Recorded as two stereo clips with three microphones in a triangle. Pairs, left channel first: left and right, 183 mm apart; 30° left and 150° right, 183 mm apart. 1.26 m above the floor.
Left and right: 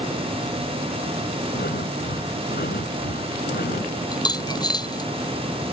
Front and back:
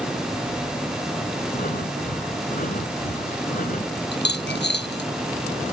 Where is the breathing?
65° left.